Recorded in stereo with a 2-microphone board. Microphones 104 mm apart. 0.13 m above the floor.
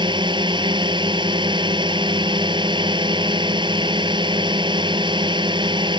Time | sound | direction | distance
0.0 | a drone | 50° right (ahead or behind) | ?